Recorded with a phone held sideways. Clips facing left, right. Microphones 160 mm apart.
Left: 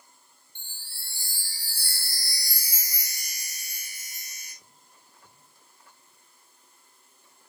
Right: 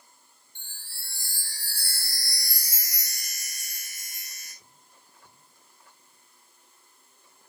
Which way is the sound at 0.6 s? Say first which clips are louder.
Even; 45° right (ahead or behind).